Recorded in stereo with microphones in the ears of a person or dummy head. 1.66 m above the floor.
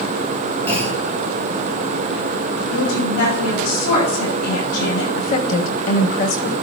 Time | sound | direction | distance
0.7 | a clunk | 15° left (ahead or behind) | 3.5 m
2.7 | a woman speaking | 85° left | 4.5 m
5.2 | a woman speaking | 40° left (ahead or behind) | 0.8 m